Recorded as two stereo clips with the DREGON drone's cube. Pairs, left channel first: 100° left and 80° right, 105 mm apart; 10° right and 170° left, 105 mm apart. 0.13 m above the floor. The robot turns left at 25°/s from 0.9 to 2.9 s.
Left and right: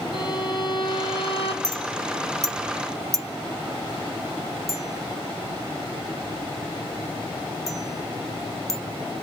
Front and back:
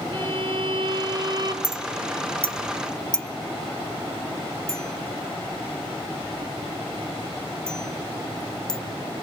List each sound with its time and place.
0.1 s a violin: 140° left, 2 m; by 1.5 s 120° left, 2 m
1.6 s a clink: 60° right, 0.7 m; by 8.8 s 90° right, 0.7 m